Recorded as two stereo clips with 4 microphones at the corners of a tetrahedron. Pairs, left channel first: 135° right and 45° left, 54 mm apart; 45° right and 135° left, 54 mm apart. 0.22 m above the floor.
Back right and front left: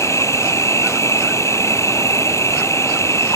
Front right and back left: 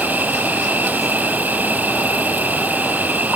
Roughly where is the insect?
Behind.